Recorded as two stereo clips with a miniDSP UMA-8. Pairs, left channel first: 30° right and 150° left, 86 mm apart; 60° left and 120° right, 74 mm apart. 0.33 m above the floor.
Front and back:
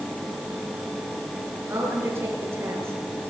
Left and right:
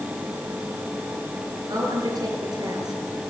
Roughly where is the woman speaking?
Behind right.